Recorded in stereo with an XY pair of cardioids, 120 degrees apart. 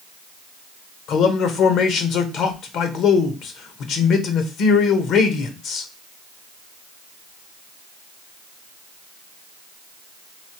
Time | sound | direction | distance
1.1 | a man speaking | 70° left | 0.9 m